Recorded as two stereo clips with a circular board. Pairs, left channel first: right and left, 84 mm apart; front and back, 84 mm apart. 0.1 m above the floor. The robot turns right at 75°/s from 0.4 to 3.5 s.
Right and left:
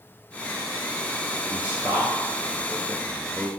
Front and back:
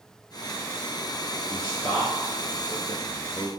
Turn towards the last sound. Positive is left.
turn(degrees=180)